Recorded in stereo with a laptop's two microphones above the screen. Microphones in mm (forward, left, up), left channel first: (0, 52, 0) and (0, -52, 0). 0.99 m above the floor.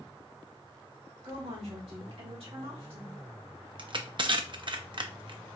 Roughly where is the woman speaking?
Right.